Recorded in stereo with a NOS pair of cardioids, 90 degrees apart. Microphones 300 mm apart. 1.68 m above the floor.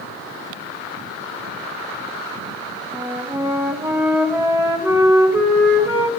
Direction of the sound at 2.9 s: 10° right.